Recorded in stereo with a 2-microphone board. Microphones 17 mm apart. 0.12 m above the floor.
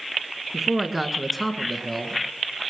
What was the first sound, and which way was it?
A man speaking, 20° right (ahead or behind).